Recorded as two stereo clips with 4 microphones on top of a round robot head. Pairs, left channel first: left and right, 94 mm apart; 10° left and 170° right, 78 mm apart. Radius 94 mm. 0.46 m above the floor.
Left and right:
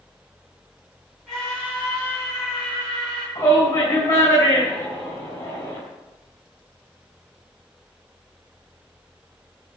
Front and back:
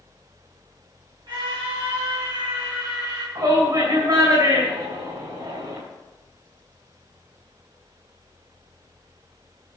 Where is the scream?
Straight behind, 4.5 m; by 3.2 s 165° left, 4 m.